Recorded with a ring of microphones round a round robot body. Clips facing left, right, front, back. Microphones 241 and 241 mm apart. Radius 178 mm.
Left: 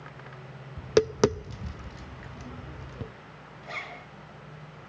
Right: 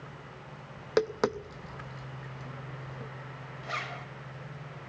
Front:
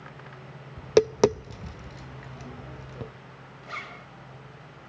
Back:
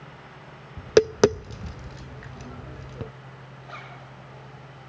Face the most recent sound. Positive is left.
turn(degrees=-15)